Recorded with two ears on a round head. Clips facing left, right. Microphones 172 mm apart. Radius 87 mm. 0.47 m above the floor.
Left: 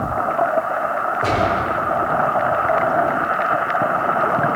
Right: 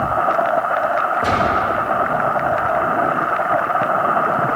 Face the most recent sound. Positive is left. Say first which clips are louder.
# left 2 dB
turn(degrees=-10)  # may be behind; listen again after turning